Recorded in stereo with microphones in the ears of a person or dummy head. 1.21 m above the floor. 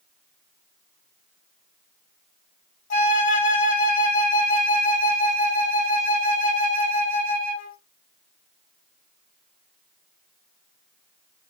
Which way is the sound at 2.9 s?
40° left (ahead or behind).